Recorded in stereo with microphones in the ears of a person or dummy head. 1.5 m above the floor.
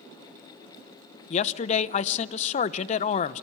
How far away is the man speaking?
About 0.8 m.